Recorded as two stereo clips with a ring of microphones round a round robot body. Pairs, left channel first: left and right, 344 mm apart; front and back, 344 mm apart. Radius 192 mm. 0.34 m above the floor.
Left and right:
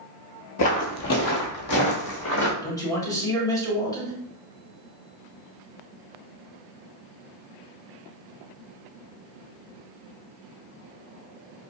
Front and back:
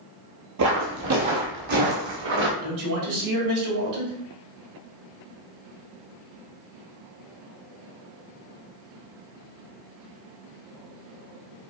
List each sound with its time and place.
0.6 s footsteps: 135° left, 0.6 m; by 2.5 s 140° left, 1.7 m
2.6 s a man speaking: 170° left, 1.8 m